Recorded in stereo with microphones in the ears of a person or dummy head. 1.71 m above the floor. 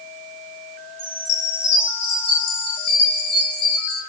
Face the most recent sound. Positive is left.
turn(degrees=65)  # may be behind; listen again after turning